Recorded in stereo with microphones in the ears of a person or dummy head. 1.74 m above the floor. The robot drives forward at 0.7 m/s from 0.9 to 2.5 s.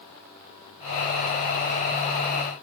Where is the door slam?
No door slam in this recording.